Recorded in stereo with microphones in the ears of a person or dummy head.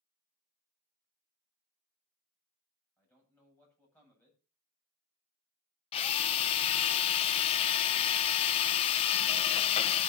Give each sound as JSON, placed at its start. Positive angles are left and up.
{"t": 3.0, "sound": "a man speaking", "side_deg": 5, "distance_m": 9.5}
{"t": 5.9, "sound": "a drill", "side_deg": 35, "distance_m": 0.6}